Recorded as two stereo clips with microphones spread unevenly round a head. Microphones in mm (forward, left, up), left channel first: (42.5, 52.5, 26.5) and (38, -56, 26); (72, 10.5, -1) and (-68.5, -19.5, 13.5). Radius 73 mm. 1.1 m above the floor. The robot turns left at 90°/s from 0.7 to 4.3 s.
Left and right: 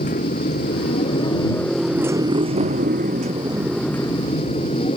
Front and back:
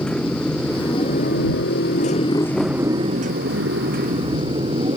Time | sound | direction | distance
0.0 | a motorcycle | 95° left | ?